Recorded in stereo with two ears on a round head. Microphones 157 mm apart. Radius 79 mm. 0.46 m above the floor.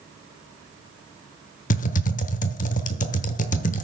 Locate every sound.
1.7 s typing on a keyboard: 45° left (ahead or behind), 0.8 m